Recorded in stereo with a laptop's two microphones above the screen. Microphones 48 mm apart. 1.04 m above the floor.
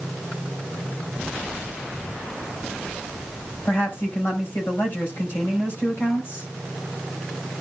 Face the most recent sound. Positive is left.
turn(degrees=50)  # may be behind; listen again after turning